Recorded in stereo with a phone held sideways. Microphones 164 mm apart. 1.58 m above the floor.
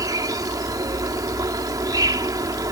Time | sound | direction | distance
0.0 | an insect | 20° right (ahead or behind) | ?